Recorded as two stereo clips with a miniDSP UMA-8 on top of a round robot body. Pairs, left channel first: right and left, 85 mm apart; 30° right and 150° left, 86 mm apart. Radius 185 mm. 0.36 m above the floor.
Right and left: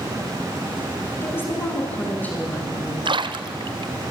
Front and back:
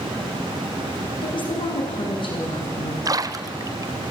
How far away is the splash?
About 1.2 m.